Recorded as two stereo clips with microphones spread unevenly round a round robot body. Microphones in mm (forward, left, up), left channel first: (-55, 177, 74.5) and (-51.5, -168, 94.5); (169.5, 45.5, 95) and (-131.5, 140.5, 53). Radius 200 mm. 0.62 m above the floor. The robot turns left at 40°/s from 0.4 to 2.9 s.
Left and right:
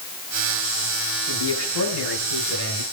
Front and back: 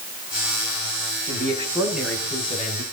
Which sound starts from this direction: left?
A man speaking, at 1.3 s.